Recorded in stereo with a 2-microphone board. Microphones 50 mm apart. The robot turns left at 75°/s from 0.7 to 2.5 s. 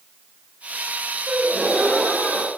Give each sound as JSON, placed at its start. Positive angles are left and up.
{"t": 1.3, "sound": "a gasp", "azimuth_deg": -125, "distance_m": 2.0}